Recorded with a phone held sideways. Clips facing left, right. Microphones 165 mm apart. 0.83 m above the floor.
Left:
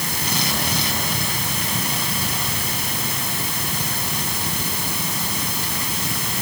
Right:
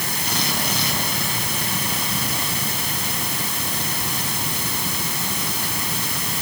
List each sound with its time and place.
Only background noise.